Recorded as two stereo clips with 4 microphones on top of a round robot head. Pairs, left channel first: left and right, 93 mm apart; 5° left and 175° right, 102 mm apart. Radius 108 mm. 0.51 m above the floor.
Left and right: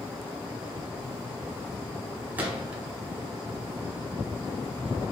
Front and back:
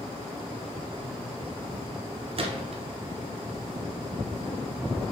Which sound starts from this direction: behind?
A gunshot, at 2.4 s.